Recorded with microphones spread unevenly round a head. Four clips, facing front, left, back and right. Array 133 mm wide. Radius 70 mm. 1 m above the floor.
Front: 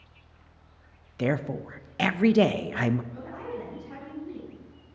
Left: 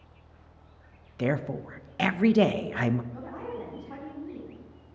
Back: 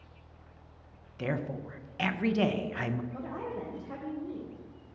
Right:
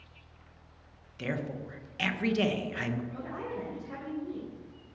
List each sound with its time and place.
1.2 s a woman speaking: 25° left, 0.5 m
3.1 s a woman speaking: straight behind, 4 m